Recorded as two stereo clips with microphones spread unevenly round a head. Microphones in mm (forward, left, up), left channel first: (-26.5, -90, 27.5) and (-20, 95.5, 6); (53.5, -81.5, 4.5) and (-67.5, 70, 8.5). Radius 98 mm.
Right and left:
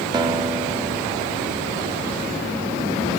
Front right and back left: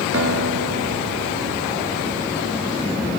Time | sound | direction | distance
0.1 | a guitar | 155° left | 1.4 m